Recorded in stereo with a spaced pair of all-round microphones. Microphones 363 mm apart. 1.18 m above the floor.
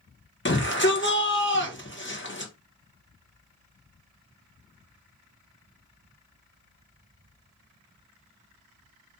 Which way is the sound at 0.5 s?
30° left (ahead or behind).